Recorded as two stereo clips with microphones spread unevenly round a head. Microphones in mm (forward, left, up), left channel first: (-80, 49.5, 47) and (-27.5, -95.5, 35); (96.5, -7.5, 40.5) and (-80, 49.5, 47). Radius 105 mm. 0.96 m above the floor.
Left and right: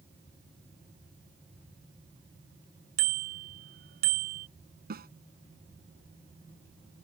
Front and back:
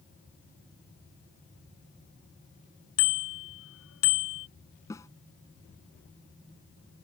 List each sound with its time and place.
3.0 s a bicycle bell: 25° right
4.9 s a snare drum: 95° right